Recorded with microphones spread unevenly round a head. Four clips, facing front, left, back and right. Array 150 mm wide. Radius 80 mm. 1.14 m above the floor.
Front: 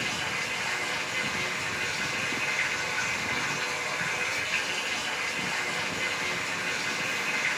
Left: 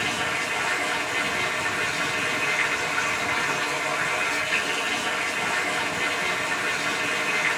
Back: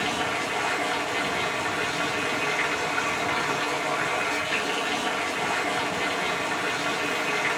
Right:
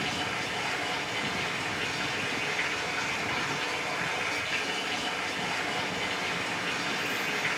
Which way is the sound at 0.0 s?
165° left.